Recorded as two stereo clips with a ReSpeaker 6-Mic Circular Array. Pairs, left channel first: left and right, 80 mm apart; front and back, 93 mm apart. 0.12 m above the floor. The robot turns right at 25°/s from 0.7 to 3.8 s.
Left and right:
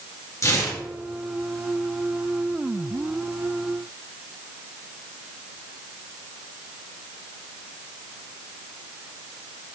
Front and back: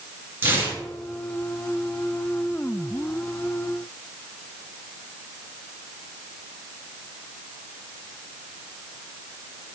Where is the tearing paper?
120° left, 2 m; by 0.8 s 125° left, 2 m.